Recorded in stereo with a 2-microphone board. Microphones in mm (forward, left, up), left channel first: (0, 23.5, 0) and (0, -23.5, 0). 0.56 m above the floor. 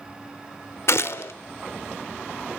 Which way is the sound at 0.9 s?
60° left (ahead or behind).